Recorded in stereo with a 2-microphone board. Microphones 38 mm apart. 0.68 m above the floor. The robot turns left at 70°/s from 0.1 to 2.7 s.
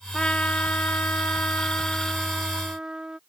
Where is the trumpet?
155° left; by 3.2 s 25° right.